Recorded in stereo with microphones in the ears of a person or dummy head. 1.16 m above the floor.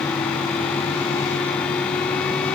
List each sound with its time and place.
Only background noise.